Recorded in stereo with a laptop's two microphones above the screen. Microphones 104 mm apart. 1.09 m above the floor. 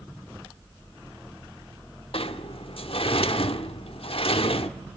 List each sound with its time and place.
2.1 s a sliding door: 65° left (ahead or behind), 1.2 m